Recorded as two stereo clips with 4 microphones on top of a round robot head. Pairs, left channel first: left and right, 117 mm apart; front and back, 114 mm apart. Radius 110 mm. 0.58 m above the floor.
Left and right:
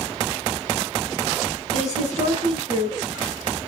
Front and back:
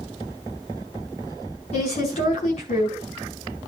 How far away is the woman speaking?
About 5 m.